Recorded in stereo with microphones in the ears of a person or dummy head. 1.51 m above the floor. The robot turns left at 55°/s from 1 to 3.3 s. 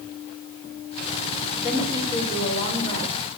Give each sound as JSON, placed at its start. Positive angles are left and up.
{"t": 1.6, "sound": "a woman speaking", "azimuth_deg": 0, "distance_m": 4.0}